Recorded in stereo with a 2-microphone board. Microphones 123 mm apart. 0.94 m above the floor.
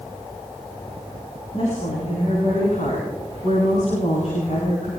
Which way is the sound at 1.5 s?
75° left (ahead or behind).